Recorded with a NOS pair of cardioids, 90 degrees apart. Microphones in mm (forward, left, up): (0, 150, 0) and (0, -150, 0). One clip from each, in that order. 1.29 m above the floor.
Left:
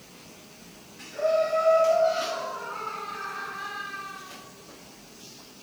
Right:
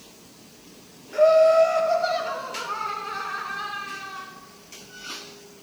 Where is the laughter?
60° right, 3 m; by 4.2 s 70° right, 4.5 m.